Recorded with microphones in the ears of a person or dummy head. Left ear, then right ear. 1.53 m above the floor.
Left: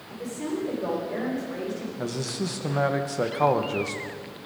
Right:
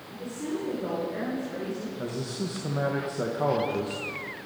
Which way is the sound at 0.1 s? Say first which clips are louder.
Left 2 dB; 35° left (ahead or behind).